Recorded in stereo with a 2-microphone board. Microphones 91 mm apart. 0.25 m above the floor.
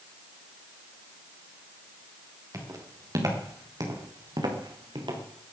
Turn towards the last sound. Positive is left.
turn(degrees=-60)  # may be behind; listen again after turning